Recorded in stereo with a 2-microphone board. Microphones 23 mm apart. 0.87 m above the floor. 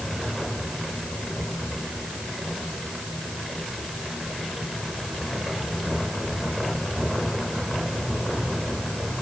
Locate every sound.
Only background noise.